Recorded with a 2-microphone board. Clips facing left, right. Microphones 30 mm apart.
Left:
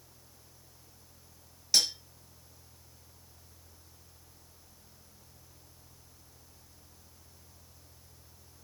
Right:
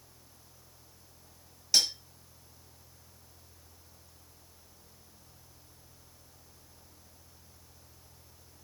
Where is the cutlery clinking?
Centre (ahead or behind), 1.5 m.